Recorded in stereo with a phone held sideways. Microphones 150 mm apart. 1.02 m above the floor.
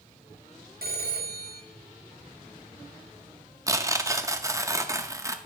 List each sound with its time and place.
0.8 s a phone ringing: 80° right, 1.2 m
3.7 s tearing paper: 20° right (ahead or behind), 0.6 m